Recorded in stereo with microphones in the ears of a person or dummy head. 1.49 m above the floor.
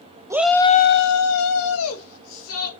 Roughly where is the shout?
Centre.